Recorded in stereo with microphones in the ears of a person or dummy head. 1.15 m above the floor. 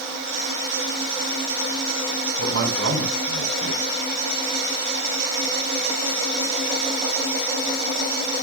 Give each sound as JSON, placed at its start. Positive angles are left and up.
{"t": 2.4, "sound": "a man speaking", "side_deg": -85, "distance_m": 4.5}